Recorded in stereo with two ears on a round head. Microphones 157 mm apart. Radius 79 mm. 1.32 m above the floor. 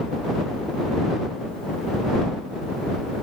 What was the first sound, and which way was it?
Only background noise.